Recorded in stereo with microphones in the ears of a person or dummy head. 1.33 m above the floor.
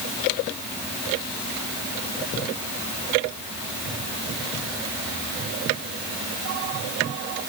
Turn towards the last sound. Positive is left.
No sound to turn to.